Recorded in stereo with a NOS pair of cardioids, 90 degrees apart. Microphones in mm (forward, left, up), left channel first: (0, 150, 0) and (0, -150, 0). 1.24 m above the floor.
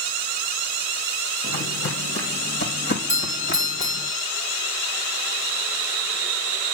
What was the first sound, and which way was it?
Footsteps, 45° left.